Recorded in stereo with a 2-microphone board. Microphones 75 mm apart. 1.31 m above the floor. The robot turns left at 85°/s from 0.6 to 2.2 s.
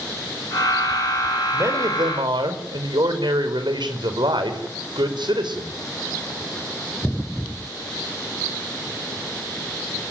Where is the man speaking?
30° right, 5 m; by 5.7 s 90° right, 5 m.